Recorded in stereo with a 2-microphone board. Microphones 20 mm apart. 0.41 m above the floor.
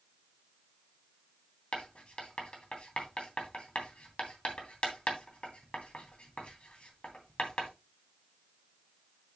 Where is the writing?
70° left (ahead or behind), 3 m.